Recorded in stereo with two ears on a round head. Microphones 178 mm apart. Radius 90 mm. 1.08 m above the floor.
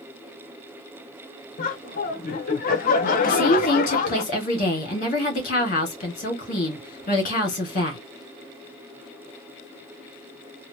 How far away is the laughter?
About 0.7 m.